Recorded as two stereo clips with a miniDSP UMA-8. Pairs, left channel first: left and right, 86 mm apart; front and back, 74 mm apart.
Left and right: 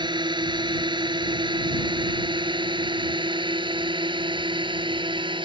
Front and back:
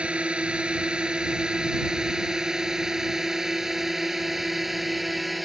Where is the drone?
105° right; by 5.5 s 90° right.